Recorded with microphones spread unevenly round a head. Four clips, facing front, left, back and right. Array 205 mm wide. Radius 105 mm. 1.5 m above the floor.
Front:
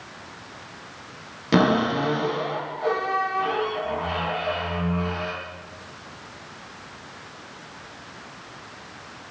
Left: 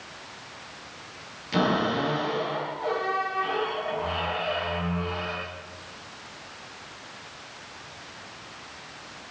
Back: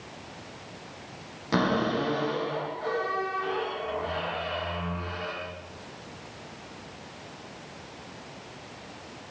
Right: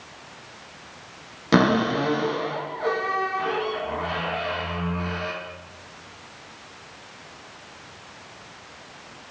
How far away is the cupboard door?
About 8 m.